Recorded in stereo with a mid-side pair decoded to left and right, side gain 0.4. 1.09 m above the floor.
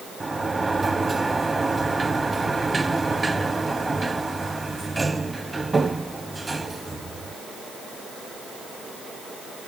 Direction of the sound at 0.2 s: 20° right.